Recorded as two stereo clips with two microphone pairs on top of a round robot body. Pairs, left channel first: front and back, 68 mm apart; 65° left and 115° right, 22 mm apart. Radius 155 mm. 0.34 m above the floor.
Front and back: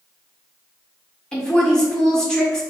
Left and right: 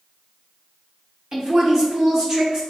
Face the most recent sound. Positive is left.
turn(degrees=-70)